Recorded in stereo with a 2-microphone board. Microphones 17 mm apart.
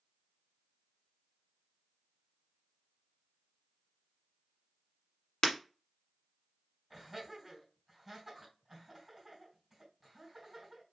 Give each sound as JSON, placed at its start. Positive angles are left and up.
{"t": 5.4, "sound": "breaking glass", "side_deg": 50, "distance_m": 1.2}
{"t": 6.9, "sound": "laughter", "side_deg": -15, "distance_m": 2.5}